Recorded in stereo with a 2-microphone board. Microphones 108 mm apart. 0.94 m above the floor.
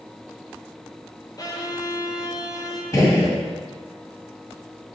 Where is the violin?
35° left (ahead or behind), 0.8 m.